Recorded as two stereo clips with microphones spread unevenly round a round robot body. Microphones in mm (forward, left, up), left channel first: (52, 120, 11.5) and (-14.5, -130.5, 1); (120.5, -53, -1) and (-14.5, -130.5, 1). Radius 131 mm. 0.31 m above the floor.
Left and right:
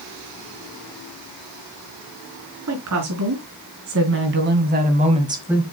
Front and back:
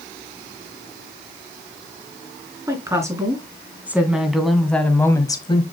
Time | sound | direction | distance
2.7 | a woman speaking | 80° right | 4 m